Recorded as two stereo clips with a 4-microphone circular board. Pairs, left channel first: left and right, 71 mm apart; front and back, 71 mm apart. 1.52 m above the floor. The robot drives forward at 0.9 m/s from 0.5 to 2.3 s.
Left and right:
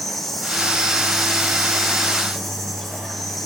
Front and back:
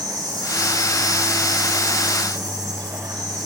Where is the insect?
Straight behind, 7.5 m.